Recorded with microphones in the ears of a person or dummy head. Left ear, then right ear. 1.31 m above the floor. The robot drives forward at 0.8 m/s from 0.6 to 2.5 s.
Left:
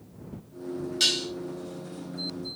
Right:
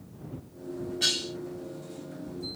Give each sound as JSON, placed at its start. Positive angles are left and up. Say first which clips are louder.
{"t": 1.0, "sound": "dishes clattering", "louder": "left 3 dB", "side_deg": 80, "distance_m": 4.5}